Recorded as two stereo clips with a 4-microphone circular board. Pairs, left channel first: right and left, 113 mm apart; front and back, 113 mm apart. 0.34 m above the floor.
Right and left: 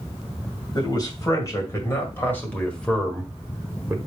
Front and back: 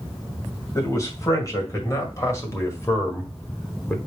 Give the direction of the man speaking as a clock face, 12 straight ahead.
2 o'clock.